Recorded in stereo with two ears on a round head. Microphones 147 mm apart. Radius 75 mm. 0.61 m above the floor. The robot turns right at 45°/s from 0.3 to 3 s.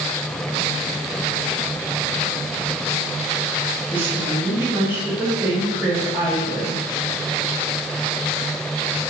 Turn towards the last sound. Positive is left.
turn(degrees=-10)  # may be behind; listen again after turning